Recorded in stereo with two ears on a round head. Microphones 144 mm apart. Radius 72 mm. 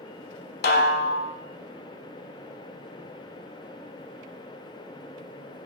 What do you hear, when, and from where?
0.6 s a snare drum: 60° left (ahead or behind), 1.0 m